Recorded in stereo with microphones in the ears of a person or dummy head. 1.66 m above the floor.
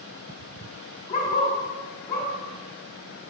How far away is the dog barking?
About 2.5 m.